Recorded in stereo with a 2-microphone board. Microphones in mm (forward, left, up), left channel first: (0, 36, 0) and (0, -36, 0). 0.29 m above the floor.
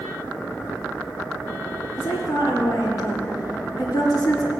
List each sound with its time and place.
1.9 s a woman speaking: 60° left (ahead or behind), 3.5 m